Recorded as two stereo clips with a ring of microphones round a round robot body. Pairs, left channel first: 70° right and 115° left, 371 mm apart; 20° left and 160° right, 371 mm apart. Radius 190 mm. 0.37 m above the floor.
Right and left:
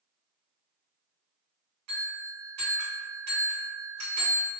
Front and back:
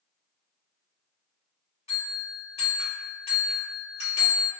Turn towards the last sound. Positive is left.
turn(degrees=95)